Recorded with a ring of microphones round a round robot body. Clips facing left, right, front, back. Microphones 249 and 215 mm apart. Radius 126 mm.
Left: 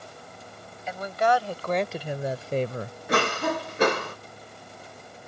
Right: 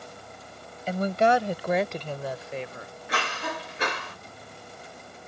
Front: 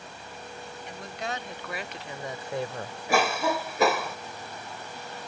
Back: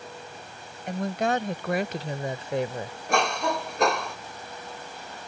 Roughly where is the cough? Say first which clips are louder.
Left 9 dB, front 1 dB; left.